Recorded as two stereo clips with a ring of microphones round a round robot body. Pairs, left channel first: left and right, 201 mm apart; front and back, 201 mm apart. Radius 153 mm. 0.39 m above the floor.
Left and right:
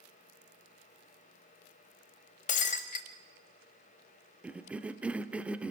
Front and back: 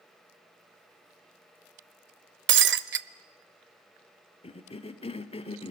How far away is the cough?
About 1.1 m.